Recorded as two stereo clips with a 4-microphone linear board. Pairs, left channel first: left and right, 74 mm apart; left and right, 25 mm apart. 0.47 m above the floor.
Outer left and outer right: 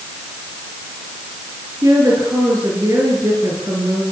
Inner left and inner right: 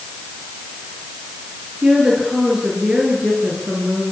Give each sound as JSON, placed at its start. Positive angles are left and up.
{"t": 1.8, "sound": "a woman speaking", "side_deg": -50, "distance_m": 8.0}